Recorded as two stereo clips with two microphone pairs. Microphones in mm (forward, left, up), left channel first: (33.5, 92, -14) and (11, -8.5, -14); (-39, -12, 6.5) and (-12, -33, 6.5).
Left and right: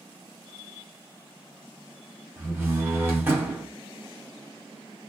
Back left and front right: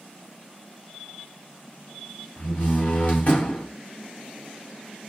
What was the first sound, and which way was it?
A door slam, 170° right.